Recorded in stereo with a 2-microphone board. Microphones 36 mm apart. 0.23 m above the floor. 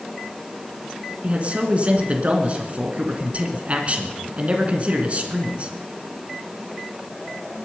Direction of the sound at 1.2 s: 40° right (ahead or behind).